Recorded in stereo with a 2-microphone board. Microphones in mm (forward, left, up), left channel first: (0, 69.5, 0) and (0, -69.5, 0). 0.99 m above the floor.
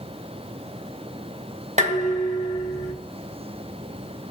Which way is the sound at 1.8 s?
60° right (ahead or behind).